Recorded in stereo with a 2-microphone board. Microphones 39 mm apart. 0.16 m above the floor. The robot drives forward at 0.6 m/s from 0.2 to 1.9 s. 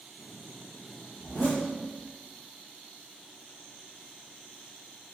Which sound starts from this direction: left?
A zipper, at 1.2 s.